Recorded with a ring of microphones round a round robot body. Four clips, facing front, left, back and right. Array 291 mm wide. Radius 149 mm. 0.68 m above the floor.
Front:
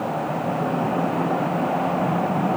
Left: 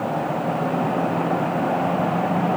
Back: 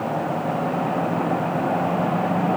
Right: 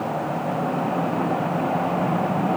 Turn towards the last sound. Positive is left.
No sound to turn to.